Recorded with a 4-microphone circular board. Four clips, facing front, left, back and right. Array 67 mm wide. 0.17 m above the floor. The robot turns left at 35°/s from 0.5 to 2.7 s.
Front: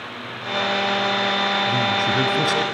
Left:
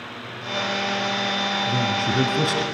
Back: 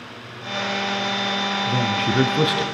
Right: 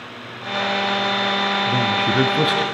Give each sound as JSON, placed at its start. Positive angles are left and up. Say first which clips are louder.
{"t": 1.7, "sound": "a man speaking", "louder": "right 3 dB, front 1 dB", "azimuth_deg": -110, "distance_m": 1.3}